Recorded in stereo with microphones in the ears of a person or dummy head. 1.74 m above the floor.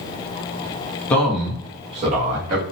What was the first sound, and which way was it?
A man speaking, 15° left (ahead or behind).